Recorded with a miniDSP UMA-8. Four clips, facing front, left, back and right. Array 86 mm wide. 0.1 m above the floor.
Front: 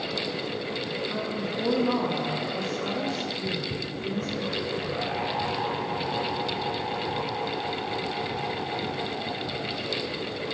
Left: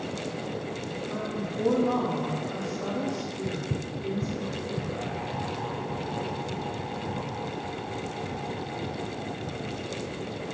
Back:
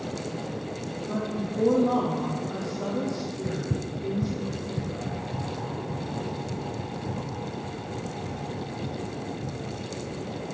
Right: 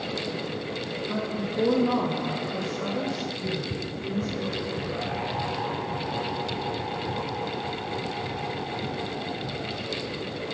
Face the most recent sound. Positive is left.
turn(degrees=155)